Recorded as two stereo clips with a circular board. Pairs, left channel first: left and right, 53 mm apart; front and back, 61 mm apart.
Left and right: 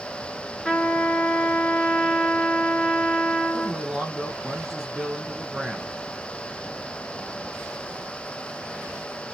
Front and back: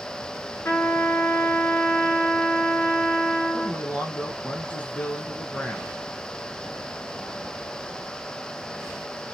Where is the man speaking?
10° right, 1.1 m.